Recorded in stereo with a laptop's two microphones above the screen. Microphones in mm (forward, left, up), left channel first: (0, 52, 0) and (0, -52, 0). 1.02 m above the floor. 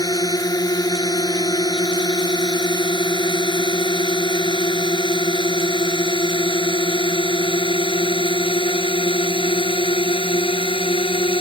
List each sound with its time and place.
0.0 s a drone: 40° left (ahead or behind); by 11.4 s 60° left (ahead or behind)